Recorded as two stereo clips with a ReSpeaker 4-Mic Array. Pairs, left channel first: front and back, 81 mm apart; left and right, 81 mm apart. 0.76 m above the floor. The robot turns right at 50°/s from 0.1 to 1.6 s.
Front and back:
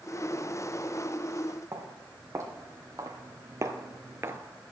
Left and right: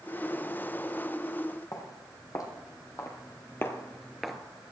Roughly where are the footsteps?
Behind left.